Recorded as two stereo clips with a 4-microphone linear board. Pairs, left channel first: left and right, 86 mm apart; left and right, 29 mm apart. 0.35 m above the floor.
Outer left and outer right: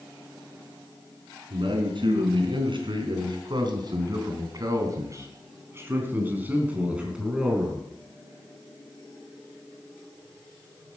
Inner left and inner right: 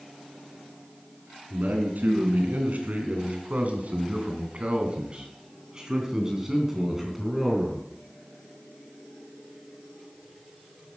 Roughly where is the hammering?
I don't hear hammering.